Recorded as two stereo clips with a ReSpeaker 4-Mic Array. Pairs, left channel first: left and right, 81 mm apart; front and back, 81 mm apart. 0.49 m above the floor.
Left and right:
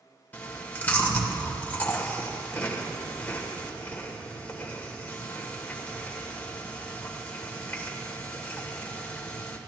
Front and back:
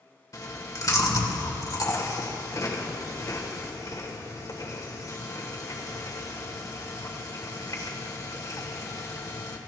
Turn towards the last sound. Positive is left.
turn(degrees=25)